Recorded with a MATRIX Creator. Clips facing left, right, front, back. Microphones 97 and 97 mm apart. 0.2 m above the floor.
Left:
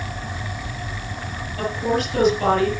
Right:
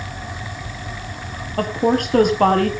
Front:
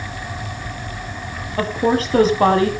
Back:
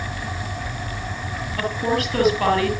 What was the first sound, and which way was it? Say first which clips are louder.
A woman speaking: right 4 dB, front 5 dB; 55° right.